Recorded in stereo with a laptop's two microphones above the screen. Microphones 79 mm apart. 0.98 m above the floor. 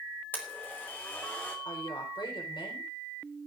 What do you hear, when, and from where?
0.3 s a blender: 25° left (ahead or behind), 2.5 m
1.6 s a woman speaking: 80° left, 4.5 m